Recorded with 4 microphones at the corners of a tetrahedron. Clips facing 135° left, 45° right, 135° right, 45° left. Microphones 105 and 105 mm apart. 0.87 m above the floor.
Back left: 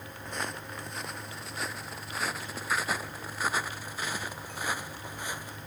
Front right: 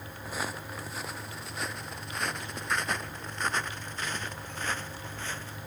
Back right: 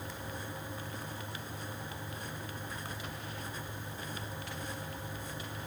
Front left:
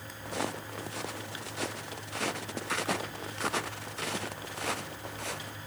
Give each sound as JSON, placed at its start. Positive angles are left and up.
{"t": 0.2, "sound": "footsteps", "azimuth_deg": 40}